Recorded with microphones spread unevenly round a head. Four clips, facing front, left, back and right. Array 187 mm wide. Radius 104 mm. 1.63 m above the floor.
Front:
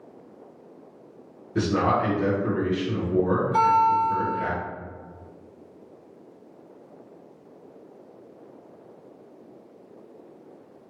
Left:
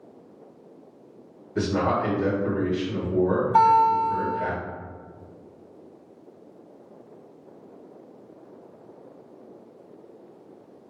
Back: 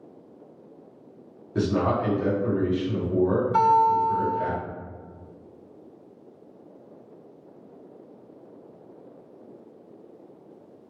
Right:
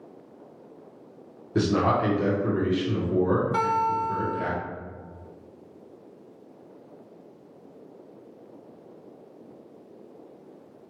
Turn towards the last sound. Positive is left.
turn(degrees=-105)